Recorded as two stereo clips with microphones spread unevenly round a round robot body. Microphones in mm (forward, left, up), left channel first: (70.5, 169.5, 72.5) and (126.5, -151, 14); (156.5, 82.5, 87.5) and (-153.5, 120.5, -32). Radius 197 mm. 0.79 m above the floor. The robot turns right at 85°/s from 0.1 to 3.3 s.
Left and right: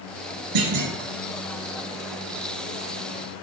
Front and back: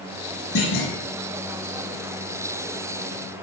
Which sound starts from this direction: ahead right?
A clunk, at 0.6 s.